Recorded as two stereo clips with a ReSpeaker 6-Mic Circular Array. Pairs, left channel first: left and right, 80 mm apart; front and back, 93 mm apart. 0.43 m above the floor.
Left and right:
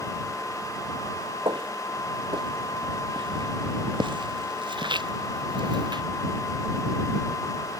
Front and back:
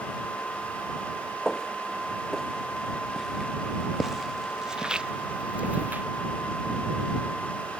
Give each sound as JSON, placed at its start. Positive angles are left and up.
{"t": 1.4, "sound": "footsteps", "azimuth_deg": -85}